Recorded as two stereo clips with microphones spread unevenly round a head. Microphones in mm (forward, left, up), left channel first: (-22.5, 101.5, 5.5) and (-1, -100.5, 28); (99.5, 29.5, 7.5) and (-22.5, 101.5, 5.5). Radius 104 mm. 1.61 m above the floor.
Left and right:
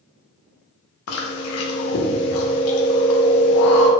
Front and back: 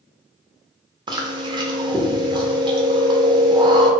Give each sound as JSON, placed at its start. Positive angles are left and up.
{"t": 1.1, "sound": "chewing", "azimuth_deg": 90, "distance_m": 0.6}